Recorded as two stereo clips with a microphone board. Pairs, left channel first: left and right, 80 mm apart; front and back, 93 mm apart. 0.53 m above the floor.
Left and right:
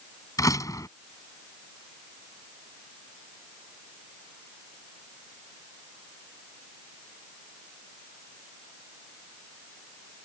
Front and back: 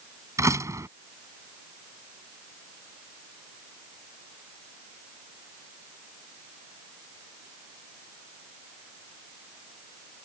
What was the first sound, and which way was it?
A door slam, 130° left.